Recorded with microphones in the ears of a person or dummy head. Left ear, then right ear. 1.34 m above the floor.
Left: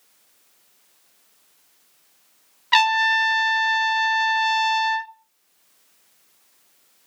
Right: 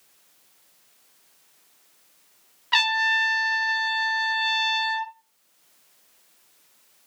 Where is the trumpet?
20° left (ahead or behind), 0.7 m.